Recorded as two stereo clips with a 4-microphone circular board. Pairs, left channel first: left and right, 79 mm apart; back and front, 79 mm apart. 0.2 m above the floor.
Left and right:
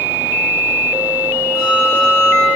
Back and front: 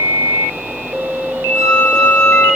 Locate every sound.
1.6 s a flute: 125° left, 7 m